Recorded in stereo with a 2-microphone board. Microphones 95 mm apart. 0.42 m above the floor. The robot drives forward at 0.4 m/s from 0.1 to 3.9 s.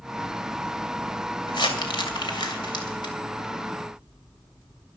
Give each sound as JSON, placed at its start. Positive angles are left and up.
{"t": 1.5, "sound": "crumpling", "side_deg": 55, "distance_m": 2.5}